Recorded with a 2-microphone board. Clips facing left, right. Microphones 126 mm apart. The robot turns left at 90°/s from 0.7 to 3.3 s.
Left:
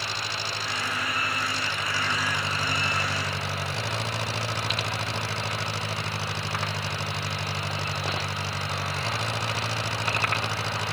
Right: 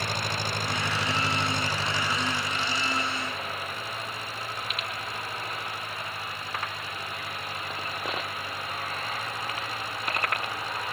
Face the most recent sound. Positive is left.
turn(degrees=80)